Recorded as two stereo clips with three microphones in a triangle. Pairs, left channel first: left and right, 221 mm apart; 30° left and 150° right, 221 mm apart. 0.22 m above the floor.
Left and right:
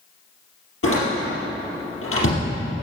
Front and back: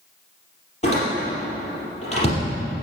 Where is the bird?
I don't hear a bird.